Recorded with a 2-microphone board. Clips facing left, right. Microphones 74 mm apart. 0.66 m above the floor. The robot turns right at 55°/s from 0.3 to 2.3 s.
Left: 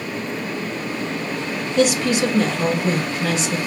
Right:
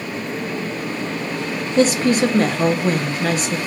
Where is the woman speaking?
30° right (ahead or behind), 0.7 m; by 3.6 s 40° right (ahead or behind), 0.7 m.